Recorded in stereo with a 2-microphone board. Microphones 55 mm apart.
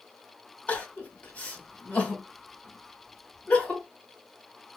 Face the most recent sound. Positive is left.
turn(degrees=25)  # may be behind; listen again after turning